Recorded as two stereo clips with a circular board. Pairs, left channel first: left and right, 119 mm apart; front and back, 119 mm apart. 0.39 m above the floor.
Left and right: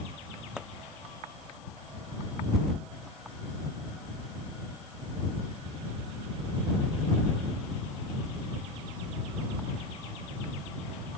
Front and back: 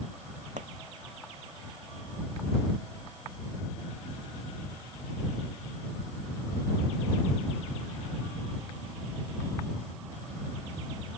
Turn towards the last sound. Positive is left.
turn(degrees=-175)